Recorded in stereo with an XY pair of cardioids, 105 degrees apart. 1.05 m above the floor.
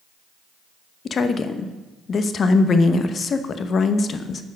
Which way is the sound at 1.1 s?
45° left.